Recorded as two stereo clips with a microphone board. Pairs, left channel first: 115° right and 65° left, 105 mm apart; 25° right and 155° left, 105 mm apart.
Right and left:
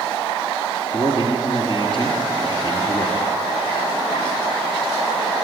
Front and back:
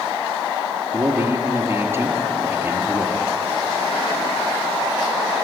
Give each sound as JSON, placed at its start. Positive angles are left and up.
{"t": 0.9, "sound": "a man speaking", "azimuth_deg": -135, "distance_m": 3.0}